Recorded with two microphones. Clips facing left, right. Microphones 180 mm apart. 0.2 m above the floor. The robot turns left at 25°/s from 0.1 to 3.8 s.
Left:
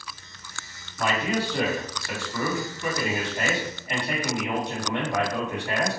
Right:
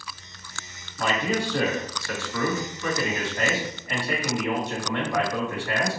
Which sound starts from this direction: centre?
A man speaking, at 1.0 s.